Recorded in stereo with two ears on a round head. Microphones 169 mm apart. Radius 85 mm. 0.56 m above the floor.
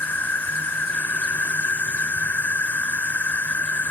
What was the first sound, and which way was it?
An insect, 10° left (ahead or behind).